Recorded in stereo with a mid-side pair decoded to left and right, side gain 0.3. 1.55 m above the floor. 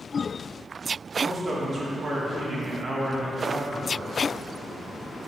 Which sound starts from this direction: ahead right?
A man speaking, at 1.2 s.